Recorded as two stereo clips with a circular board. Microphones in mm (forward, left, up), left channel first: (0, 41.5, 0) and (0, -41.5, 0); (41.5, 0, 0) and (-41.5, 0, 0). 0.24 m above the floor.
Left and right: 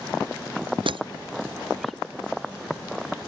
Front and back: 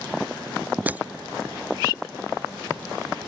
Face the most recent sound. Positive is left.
turn(degrees=-110)